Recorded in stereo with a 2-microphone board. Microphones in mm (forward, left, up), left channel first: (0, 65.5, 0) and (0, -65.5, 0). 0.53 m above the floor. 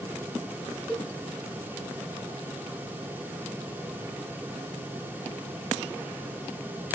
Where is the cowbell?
5° left (ahead or behind), 4 m.